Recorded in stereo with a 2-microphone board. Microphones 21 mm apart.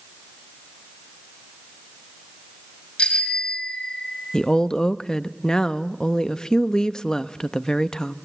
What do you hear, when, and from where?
3.0 s a bicycle bell: 70° left (ahead or behind), 3.5 m; by 4.2 s 60° left (ahead or behind), 3.5 m
4.3 s a woman speaking: 45° left (ahead or behind), 0.6 m